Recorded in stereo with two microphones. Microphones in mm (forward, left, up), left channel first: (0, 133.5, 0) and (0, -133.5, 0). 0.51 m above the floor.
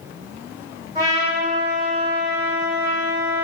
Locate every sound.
0.9 s a trumpet: 15° right (ahead or behind), 1.7 m